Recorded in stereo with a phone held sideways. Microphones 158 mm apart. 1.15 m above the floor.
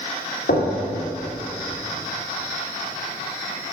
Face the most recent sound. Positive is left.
turn(degrees=80)